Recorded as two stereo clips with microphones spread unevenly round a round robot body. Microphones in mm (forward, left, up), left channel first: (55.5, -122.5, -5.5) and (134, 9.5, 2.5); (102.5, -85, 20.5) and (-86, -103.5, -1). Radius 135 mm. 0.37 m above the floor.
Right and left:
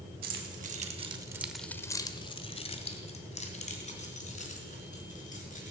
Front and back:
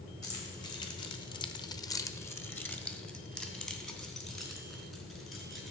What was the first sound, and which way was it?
Keys jangling, 85° left.